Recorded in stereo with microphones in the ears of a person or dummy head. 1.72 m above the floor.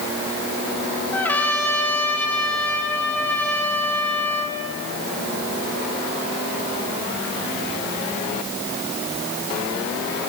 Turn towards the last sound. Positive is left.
turn(degrees=5)  # may be behind; listen again after turning